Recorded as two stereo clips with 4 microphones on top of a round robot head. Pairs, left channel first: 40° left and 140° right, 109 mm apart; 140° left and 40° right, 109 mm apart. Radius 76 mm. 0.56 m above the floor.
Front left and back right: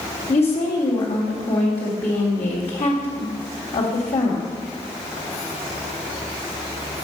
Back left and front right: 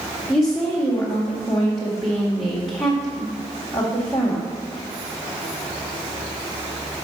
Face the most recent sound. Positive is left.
turn(degrees=40)